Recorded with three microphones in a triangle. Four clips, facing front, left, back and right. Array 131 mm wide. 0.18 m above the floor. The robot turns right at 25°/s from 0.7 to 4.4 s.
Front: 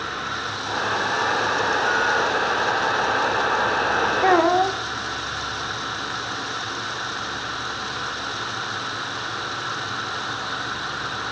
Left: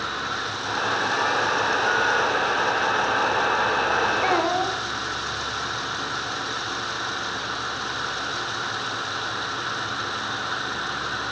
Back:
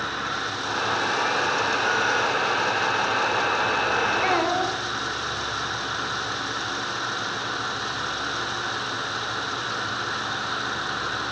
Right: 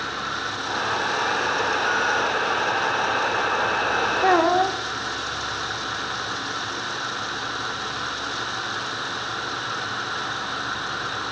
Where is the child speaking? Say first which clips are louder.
Right 4 dB, front 6 dB; 35° right, 0.9 m; by 4.8 s 30° right, 0.9 m.